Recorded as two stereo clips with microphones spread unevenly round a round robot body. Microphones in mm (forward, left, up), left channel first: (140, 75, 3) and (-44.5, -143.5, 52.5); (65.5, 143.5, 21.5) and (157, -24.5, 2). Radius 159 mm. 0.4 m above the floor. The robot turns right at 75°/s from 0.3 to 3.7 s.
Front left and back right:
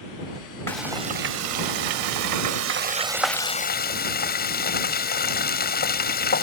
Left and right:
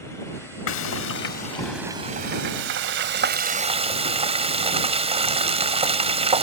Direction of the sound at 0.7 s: 130° left.